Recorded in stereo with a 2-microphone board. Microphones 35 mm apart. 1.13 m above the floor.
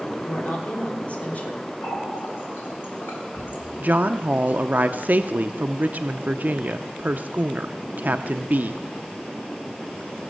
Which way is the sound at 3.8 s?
45° right (ahead or behind).